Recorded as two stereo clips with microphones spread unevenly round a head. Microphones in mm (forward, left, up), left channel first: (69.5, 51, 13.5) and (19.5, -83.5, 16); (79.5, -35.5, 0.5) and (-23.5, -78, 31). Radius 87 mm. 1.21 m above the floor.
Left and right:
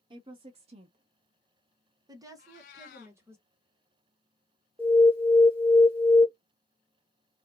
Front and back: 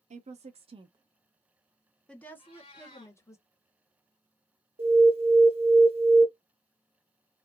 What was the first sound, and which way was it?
A woman speaking, 165° right.